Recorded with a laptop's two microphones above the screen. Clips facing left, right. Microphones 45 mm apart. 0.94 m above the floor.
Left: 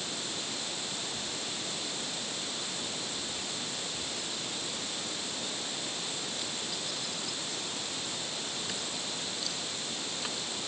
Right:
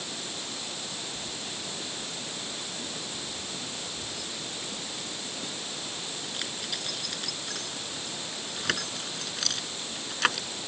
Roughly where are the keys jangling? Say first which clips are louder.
Even; right.